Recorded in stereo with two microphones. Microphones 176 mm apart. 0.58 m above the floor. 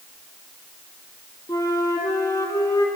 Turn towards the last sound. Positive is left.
turn(degrees=20)  # may be behind; listen again after turning